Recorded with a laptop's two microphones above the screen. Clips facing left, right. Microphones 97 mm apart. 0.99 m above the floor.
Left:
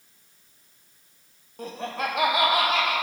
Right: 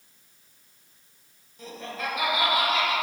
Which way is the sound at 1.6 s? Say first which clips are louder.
Left 4 dB; 55° left (ahead or behind).